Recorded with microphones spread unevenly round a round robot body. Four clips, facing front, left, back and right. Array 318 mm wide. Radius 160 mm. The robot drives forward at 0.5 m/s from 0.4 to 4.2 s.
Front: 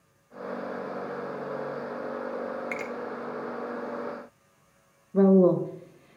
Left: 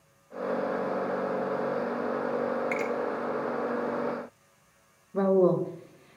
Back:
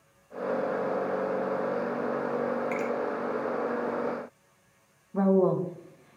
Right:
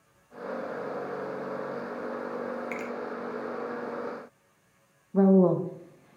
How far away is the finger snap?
About 0.8 m.